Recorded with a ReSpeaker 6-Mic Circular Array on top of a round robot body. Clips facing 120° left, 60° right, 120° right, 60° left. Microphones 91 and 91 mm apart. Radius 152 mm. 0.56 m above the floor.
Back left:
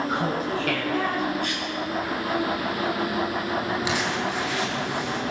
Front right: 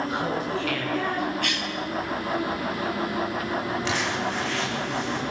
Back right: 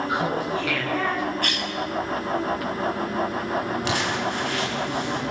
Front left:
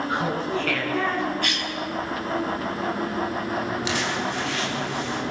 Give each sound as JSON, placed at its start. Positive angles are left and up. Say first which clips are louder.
{"t": 0.1, "sound": "laughter", "louder": "back left 1 dB, back right 1 dB", "azimuth_deg": 165, "distance_m": 9.5}
{"t": 1.4, "sound": "a cough", "louder": "back left 1 dB, back right 1 dB", "azimuth_deg": -80, "distance_m": 6.0}
{"t": 3.9, "sound": "crumpling", "louder": "back left 1 dB, back right 1 dB", "azimuth_deg": -160, "distance_m": 7.0}